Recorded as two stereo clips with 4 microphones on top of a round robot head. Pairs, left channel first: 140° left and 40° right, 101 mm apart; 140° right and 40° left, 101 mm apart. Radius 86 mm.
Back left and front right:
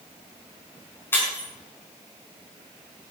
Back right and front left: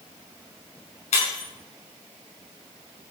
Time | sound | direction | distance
1.1 | breaking glass | 150° right | 5 m